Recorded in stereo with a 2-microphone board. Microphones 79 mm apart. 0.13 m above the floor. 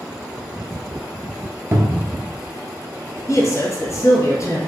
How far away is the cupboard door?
About 0.6 m.